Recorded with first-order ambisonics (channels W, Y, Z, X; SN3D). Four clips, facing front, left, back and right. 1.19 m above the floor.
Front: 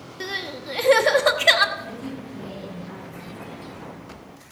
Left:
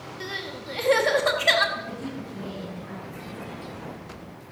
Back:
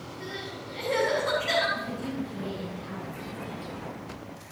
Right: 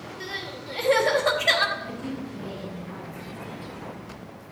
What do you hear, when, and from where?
0.2 s crying: 5° left, 0.9 m
1.8 s a woman speaking: 130° left, 6 m